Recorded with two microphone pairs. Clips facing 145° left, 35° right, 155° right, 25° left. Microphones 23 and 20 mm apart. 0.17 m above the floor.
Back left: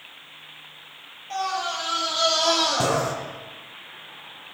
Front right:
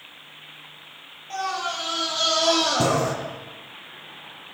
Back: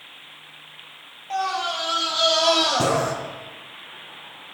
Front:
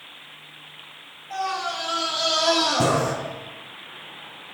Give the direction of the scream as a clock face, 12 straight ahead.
4 o'clock.